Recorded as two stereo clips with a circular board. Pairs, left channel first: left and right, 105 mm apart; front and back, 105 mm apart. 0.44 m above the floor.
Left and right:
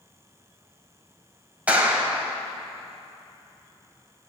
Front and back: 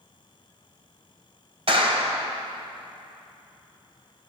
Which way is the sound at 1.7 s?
165° right.